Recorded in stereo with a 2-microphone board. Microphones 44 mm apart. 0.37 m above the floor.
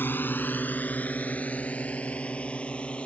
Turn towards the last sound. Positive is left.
turn(degrees=25)  # may be behind; listen again after turning